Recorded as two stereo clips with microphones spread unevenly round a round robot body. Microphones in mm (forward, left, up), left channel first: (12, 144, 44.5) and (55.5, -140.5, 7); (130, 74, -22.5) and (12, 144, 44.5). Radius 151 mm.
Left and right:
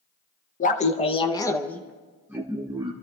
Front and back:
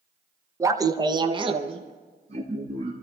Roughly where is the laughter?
Ahead left.